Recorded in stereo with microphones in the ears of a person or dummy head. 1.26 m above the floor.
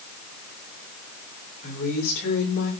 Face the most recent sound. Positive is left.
turn(degrees=55)  # may be behind; listen again after turning